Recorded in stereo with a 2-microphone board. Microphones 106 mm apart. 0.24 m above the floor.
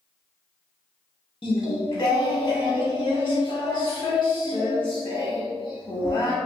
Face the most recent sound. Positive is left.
turn(degrees=50)  # may be behind; listen again after turning